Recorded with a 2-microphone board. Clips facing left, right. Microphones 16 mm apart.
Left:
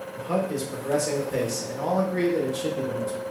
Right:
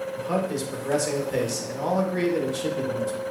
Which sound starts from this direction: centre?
A man speaking, at 0.1 s.